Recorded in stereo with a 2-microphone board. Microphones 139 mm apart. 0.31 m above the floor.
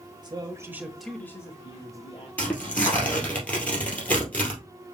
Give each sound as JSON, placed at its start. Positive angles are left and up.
{"t": 0.2, "sound": "a man speaking", "side_deg": -35, "distance_m": 1.2}
{"t": 2.4, "sound": "tearing paper", "side_deg": 10, "distance_m": 2.0}